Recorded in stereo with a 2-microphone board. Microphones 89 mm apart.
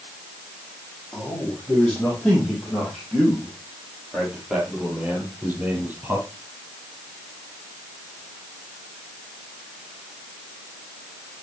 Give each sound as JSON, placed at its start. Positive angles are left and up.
{"t": 1.1, "sound": "a man speaking", "side_deg": 15, "distance_m": 6.0}